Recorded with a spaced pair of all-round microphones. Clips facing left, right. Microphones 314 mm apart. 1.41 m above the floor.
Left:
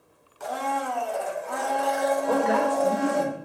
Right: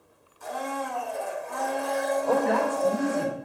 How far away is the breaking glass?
I don't hear breaking glass.